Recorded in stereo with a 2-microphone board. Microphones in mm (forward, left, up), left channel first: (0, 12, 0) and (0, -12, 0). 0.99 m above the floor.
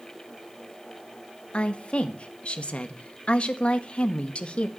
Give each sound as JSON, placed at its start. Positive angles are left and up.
{"t": 1.5, "sound": "a woman speaking", "side_deg": 60, "distance_m": 1.4}